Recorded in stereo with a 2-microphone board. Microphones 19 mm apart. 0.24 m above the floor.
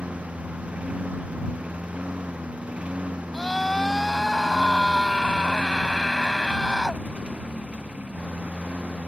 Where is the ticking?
I don't hear ticking.